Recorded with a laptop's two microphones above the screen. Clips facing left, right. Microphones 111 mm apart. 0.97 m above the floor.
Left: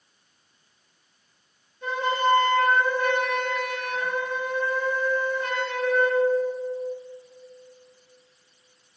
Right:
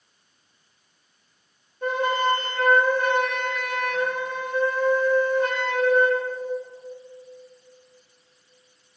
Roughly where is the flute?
Right.